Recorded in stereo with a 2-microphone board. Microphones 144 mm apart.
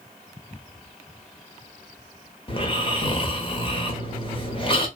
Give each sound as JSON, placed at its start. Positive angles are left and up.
{"t": 2.5, "sound": "snoring", "side_deg": 35, "distance_m": 0.7}